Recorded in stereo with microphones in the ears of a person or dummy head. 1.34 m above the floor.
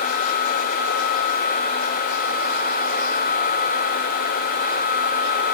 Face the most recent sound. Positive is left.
No sound to turn to.